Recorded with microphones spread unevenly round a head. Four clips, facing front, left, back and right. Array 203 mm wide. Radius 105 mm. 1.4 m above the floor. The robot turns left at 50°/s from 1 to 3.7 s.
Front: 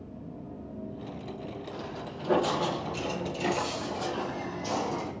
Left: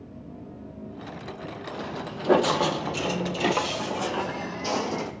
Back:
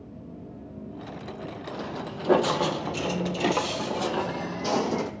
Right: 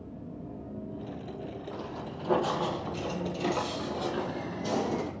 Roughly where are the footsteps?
Behind left.